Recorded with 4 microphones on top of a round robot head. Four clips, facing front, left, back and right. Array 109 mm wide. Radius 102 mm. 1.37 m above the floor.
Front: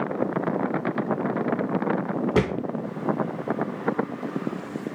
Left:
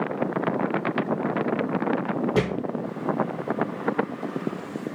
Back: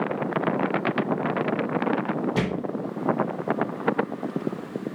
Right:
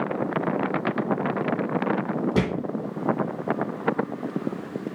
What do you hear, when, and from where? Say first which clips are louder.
2.4 s a thud: even, front 8 dB; 5° right, 1.6 m